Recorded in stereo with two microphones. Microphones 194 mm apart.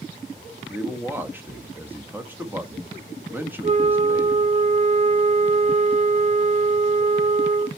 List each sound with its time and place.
0.7 s a man speaking: 10° right (ahead or behind), 1.3 m
3.6 s a flute: 35° right (ahead or behind), 0.6 m